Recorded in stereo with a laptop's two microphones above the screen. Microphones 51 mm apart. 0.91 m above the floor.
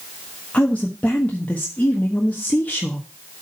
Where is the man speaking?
30° left (ahead or behind), 1.3 m.